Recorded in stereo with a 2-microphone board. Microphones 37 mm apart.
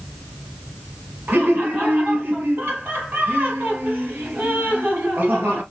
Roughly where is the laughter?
Right.